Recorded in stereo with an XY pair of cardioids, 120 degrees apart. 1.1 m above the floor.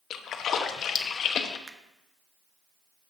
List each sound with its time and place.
0.1 s a splash: 55° left, 1.0 m
1.7 s a finger snap: 20° right, 0.8 m